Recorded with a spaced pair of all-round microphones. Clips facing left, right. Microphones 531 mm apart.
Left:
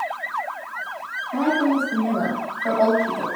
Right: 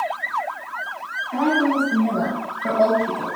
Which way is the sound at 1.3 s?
80° right.